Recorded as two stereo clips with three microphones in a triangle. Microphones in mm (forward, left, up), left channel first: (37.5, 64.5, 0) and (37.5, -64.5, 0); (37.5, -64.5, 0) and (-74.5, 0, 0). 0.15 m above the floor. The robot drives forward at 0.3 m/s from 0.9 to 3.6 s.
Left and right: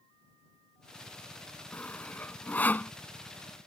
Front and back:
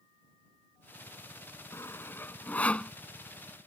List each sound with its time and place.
1.7 s sawing: 20° left; by 2.9 s 40° left